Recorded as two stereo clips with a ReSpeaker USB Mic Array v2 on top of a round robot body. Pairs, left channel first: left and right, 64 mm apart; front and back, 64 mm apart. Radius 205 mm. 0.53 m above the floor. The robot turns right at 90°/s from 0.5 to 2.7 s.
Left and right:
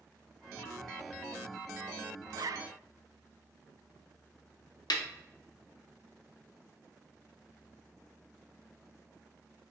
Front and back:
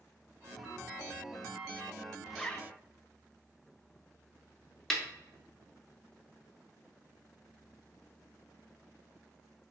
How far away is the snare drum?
About 0.8 m.